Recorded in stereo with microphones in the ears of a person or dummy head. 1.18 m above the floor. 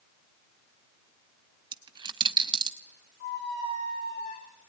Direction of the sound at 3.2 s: 55° left (ahead or behind).